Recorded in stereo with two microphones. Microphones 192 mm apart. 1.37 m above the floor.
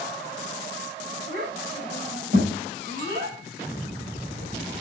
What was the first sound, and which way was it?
A child speaking, 75° right (ahead or behind).